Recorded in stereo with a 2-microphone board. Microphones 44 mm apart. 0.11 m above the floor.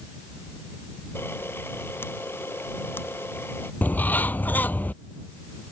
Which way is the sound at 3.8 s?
40° left (ahead or behind).